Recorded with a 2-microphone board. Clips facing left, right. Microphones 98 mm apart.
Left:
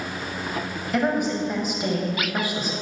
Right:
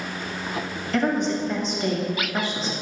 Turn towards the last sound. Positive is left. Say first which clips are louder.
# even
turn(degrees=10)  # may be behind; listen again after turning